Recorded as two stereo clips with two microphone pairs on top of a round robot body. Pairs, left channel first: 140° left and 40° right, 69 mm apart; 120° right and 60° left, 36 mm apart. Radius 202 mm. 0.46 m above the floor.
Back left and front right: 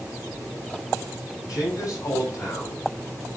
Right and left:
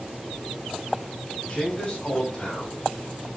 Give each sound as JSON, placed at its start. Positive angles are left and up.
{"t": 1.5, "sound": "a man speaking", "azimuth_deg": 170, "distance_m": 4.0}